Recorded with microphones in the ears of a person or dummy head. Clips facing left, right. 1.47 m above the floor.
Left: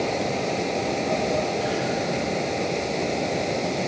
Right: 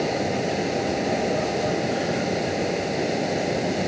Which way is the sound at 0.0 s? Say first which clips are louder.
Right 1 dB; 10° right (ahead or behind).